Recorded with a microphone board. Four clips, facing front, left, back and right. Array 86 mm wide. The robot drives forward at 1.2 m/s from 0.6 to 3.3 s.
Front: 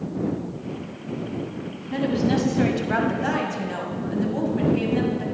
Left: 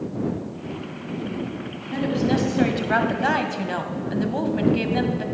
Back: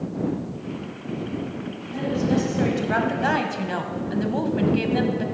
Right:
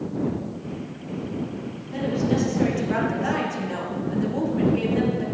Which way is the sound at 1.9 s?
40° left.